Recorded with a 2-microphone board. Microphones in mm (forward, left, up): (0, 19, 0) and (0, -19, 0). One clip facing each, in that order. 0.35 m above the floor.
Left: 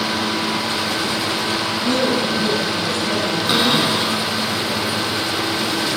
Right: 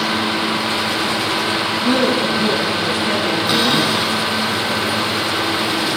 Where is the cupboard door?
15° left (ahead or behind), 3.5 m.